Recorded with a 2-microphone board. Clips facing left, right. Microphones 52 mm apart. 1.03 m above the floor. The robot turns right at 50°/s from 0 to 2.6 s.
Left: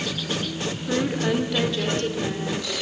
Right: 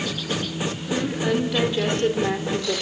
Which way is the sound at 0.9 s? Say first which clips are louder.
Left 1 dB; 150° left.